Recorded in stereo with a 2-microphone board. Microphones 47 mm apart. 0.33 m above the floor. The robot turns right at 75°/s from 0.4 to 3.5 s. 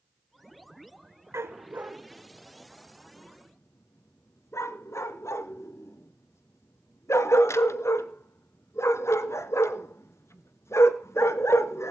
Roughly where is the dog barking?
Right.